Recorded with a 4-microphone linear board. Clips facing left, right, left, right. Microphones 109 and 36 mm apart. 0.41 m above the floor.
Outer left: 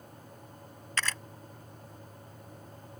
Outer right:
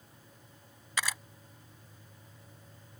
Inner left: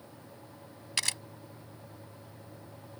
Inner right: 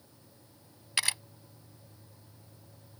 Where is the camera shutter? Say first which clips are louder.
Even, inner right 2 dB; 10° right (ahead or behind).